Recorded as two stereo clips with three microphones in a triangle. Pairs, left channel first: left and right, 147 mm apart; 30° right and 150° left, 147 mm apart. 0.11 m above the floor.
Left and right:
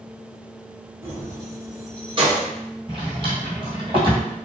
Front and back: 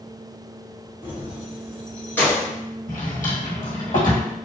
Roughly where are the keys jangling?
Behind right.